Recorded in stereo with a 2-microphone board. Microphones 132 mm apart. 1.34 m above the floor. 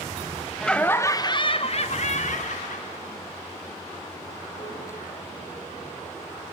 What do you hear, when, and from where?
0.6 s laughter: 5° left (ahead or behind), 0.8 m; by 6.2 s 85° left, 3.5 m